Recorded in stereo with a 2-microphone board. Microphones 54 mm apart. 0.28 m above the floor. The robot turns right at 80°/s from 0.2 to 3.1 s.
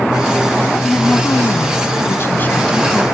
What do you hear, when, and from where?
0.8 s a woman speaking: 10° left; by 3.0 s 175° right